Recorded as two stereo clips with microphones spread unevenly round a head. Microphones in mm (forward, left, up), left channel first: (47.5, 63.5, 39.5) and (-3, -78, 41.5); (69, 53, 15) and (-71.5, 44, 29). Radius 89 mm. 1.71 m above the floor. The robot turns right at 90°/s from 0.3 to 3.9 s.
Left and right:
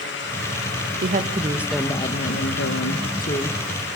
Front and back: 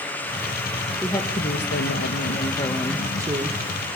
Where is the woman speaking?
85° right, 1.9 m; by 3.6 s 150° left, 1.9 m.